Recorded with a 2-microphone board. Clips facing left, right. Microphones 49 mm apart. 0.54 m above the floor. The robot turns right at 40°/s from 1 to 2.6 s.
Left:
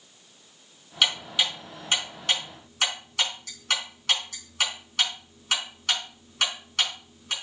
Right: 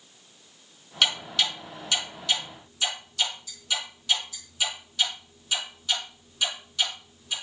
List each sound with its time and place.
1.0 s ticking: centre (ahead or behind), 4 m; by 7.3 s 65° left (ahead or behind), 4 m